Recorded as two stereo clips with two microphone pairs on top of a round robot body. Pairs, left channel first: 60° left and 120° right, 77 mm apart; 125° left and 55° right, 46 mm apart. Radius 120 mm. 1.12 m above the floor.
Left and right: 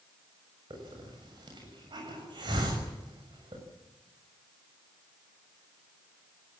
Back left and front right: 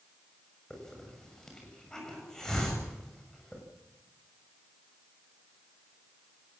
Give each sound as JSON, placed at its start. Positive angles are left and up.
{"t": 0.7, "sound": "a hiss", "azimuth_deg": -155, "distance_m": 7.0}